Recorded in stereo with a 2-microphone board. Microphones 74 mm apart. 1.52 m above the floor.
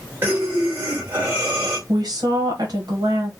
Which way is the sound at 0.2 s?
25° right (ahead or behind).